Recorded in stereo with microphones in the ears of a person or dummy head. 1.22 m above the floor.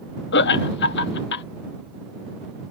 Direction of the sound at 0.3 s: 60° left (ahead or behind).